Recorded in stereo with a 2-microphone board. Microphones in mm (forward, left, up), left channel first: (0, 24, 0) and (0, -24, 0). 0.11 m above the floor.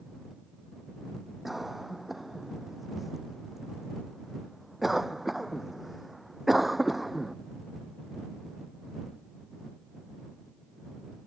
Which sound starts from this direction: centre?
A cough, at 1.4 s.